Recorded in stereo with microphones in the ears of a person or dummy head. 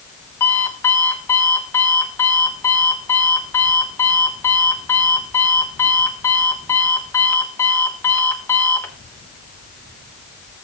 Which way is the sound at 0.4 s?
15° left (ahead or behind).